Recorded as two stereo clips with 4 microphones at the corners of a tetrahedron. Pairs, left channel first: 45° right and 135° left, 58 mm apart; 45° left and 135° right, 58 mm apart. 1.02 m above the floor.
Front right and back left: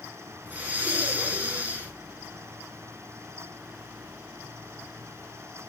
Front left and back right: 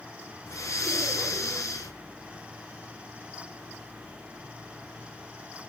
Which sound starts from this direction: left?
Breathing, at 0.5 s.